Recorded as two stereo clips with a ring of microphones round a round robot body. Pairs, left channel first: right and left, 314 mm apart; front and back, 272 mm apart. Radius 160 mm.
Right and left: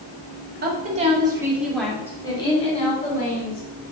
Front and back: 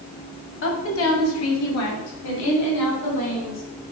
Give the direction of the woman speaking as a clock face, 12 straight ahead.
11 o'clock.